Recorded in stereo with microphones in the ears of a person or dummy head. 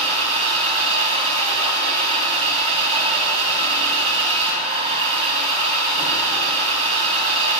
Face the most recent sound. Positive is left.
turn(degrees=-40)  # may be behind; listen again after turning